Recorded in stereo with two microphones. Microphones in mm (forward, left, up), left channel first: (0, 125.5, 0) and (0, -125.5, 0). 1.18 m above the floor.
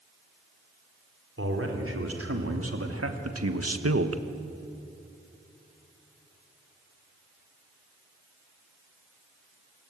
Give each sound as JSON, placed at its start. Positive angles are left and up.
{"t": 1.4, "sound": "a man speaking", "side_deg": -60, "distance_m": 4.5}